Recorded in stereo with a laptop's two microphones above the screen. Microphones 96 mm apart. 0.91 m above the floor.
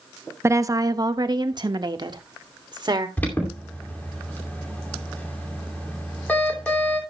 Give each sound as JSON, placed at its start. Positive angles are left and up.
{"t": 0.4, "sound": "a woman speaking", "side_deg": -30, "distance_m": 0.7}
{"t": 3.2, "sound": "an alarm", "side_deg": 15, "distance_m": 2.5}